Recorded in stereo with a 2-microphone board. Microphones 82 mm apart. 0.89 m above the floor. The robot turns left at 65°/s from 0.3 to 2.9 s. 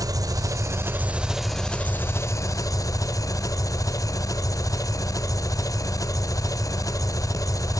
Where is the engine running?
105° right, 0.7 m; by 7.8 s 85° left, 0.7 m.